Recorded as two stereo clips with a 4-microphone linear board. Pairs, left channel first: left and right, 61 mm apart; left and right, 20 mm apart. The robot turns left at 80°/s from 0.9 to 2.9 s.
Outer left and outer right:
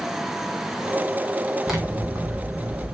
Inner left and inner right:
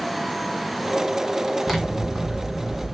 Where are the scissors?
5° right, 3 m; by 2.9 s 105° right, 3 m.